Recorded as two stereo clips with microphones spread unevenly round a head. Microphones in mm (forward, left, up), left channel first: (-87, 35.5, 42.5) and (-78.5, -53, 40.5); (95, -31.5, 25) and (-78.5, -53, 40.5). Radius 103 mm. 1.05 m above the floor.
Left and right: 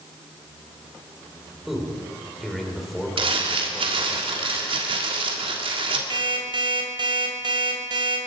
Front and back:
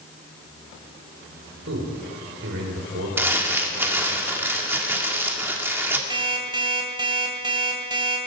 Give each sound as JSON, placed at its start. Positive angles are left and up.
{"t": 1.7, "sound": "a man speaking", "azimuth_deg": -175, "distance_m": 4.0}
{"t": 3.2, "sound": "crumpling", "azimuth_deg": -95, "distance_m": 2.0}
{"t": 6.1, "sound": "an alarm clock", "azimuth_deg": -110, "distance_m": 3.0}